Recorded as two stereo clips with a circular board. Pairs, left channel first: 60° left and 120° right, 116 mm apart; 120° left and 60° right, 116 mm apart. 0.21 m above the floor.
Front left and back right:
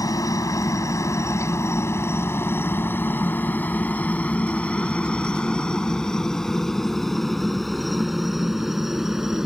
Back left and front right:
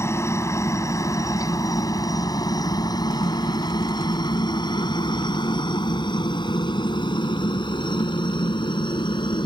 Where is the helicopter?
80° left; by 9.5 s 155° left.